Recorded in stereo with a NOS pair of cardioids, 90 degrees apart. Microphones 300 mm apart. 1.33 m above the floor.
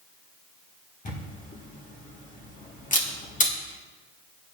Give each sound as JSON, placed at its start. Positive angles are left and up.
{"t": 1.1, "sound": "a camera shutter", "azimuth_deg": 25, "distance_m": 1.6}